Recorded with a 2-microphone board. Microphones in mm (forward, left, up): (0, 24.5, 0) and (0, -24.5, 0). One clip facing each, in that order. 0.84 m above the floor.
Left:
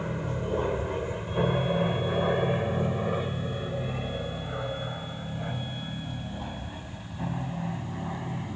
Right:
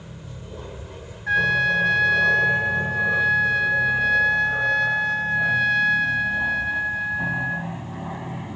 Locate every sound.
0.0 s an aircraft: 40° left (ahead or behind); by 8.6 s 15° right (ahead or behind)
1.3 s a trumpet: 85° right